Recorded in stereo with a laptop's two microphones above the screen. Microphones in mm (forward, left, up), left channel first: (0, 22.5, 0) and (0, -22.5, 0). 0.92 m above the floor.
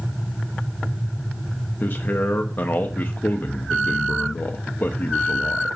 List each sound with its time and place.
1.8 s a man speaking: 45° left (ahead or behind), 0.9 m